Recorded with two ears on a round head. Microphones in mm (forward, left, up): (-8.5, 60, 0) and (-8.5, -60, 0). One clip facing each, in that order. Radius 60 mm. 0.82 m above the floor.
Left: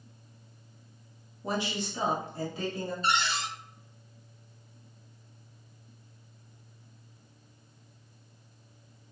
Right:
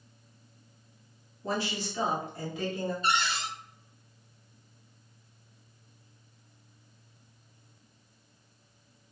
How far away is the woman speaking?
About 0.9 m.